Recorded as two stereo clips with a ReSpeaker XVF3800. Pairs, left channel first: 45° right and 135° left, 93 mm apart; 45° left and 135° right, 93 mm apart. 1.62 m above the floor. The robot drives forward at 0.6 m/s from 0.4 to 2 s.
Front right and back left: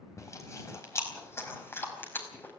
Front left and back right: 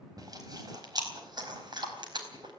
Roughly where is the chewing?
Right.